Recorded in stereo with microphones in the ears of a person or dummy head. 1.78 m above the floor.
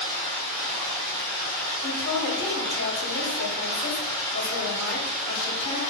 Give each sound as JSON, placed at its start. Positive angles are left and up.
{"t": 0.0, "sound": "running water", "side_deg": -55, "distance_m": 1.9}
{"t": 1.8, "sound": "a woman speaking", "side_deg": 70, "distance_m": 0.9}